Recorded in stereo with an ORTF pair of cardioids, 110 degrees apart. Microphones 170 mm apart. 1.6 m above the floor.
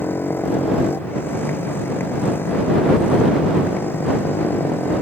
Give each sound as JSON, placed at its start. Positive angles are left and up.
{"t": 0.0, "sound": "a motorcycle", "azimuth_deg": 15}